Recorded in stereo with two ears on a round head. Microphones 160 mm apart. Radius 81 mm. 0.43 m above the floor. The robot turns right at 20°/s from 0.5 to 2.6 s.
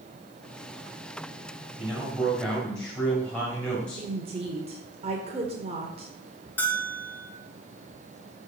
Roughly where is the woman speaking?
Right.